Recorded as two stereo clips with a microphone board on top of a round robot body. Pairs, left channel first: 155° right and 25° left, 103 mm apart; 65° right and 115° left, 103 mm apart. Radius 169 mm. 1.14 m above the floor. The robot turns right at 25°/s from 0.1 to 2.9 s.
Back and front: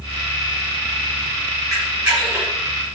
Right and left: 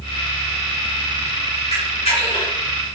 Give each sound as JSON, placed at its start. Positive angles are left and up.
{"t": 1.7, "sound": "a camera shutter", "azimuth_deg": -65, "distance_m": 2.5}